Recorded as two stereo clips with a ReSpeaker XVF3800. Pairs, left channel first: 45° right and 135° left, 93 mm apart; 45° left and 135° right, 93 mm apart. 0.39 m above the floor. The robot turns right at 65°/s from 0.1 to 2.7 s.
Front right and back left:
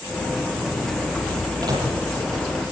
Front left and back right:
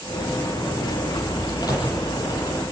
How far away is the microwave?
About 7.5 m.